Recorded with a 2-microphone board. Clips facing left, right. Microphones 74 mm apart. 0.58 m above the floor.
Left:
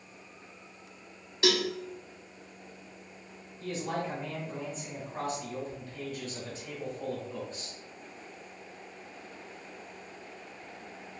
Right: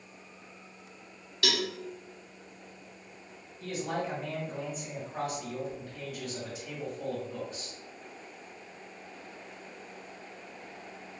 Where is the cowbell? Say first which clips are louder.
Left 4 dB; 25° left (ahead or behind), 0.5 m.